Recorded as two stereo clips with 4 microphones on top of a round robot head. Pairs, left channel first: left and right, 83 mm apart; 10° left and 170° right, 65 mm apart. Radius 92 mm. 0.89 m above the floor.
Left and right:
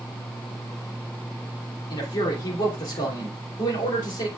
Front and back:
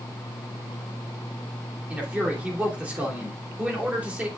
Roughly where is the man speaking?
Behind left.